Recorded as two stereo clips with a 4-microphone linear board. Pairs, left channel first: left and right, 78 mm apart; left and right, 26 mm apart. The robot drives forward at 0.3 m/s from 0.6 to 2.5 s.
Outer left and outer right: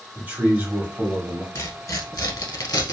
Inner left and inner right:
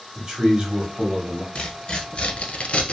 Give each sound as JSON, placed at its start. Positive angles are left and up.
{"t": 0.1, "sound": "a man speaking", "side_deg": -25, "distance_m": 1.2}
{"t": 1.6, "sound": "tearing paper", "side_deg": 45, "distance_m": 0.9}